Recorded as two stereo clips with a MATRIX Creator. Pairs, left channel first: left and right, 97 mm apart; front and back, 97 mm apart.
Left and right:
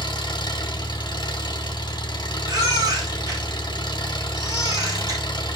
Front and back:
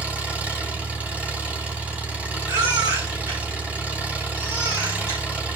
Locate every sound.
0.0 s an engine running: 110° left, 1.8 m
2.5 s a baby crying: 135° right, 3.5 m